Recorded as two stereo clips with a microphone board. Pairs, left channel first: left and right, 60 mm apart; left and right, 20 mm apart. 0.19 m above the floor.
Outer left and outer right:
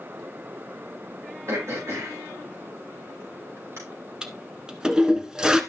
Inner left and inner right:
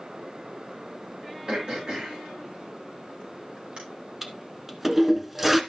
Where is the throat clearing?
55° right (ahead or behind), 5.5 m.